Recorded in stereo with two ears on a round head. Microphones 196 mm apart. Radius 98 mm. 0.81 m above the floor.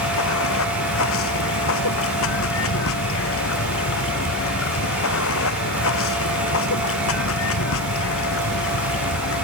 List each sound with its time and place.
0.0 s running water: 65° left (ahead or behind)